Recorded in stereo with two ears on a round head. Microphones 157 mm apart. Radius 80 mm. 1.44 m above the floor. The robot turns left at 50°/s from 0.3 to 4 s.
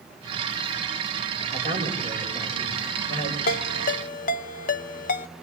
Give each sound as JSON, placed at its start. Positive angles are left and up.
{"t": 1.5, "sound": "a man speaking", "azimuth_deg": -130, "distance_m": 7.0}
{"t": 3.5, "sound": "a ringtone", "side_deg": 55, "distance_m": 0.8}